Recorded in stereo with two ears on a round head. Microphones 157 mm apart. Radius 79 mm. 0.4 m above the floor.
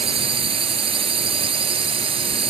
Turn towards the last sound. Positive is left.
turn(degrees=-35)  # may be behind; listen again after turning